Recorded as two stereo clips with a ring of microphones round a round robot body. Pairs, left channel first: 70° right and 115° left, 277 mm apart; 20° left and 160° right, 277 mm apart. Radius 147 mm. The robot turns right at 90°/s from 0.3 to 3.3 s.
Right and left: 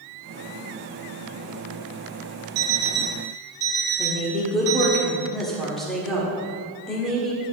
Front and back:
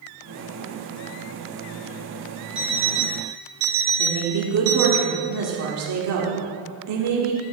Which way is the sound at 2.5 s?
115° left.